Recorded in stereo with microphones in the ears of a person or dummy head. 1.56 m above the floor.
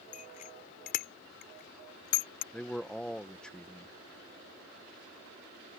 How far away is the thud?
I don't hear a thud.